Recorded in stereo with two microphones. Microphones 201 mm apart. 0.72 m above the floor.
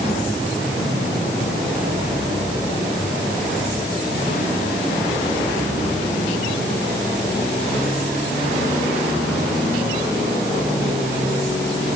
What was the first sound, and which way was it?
Only background noise.